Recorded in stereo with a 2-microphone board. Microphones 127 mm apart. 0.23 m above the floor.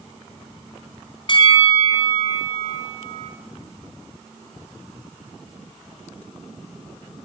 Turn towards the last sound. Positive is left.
turn(degrees=40)  # may be behind; listen again after turning